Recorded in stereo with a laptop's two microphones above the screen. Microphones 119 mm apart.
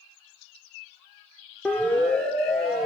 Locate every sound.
1.6 s a siren: 10° left (ahead or behind), 2.5 m; by 2.9 s 5° left (ahead or behind), 4 m